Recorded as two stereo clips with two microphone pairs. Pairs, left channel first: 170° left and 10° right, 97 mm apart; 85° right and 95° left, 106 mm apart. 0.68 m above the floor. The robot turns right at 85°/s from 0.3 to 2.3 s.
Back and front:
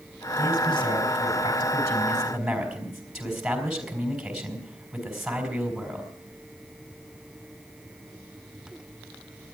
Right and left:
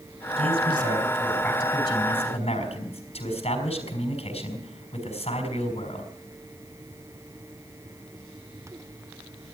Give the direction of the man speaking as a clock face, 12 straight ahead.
9 o'clock.